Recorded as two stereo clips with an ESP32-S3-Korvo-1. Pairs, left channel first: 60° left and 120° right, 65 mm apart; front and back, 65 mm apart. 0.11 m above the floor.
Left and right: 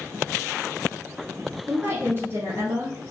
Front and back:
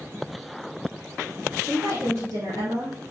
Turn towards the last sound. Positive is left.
turn(degrees=-155)